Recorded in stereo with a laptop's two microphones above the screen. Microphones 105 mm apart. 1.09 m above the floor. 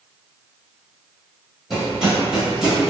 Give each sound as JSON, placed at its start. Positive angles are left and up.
{"t": 1.7, "sound": "running footsteps", "side_deg": -5, "distance_m": 1.6}